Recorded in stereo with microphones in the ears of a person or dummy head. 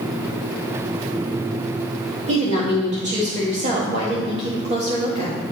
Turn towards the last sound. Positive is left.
turn(degrees=-40)  # may be behind; listen again after turning